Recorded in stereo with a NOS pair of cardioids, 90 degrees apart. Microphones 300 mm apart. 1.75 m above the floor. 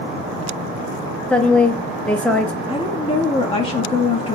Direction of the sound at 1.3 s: 5° left.